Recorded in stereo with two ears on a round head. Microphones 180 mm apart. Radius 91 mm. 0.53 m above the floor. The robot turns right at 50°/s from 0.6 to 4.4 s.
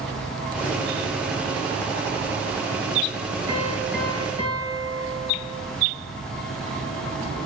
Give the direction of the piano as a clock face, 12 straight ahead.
1 o'clock.